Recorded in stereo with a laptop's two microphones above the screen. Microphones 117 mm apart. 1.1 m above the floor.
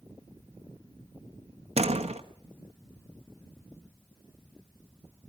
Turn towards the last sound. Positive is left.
turn(degrees=-65)  # may be behind; listen again after turning